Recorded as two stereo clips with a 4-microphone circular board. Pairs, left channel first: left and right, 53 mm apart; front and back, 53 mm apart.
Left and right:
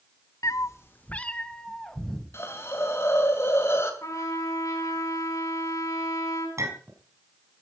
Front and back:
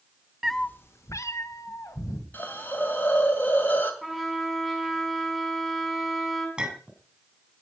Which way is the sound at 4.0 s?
85° left.